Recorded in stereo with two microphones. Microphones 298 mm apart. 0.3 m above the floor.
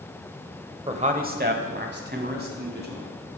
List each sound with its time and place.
0.9 s a man speaking: 20° right (ahead or behind), 0.9 m; by 3.1 s 35° right (ahead or behind), 3 m